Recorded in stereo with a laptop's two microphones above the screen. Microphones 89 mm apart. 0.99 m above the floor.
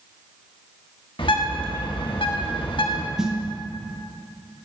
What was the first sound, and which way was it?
A bird, 65° left (ahead or behind).